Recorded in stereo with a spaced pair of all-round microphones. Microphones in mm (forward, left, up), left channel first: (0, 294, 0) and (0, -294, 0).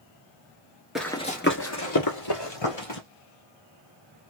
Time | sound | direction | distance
0.9 | running footsteps | centre (ahead or behind) | 1.0 m